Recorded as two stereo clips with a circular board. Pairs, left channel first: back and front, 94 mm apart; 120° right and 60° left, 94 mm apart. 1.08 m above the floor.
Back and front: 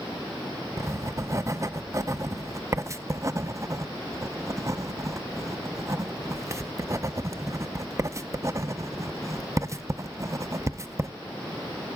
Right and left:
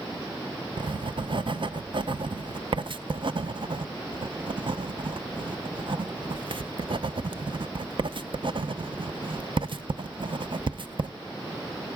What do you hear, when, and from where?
0.8 s writing: 55° left, 0.6 m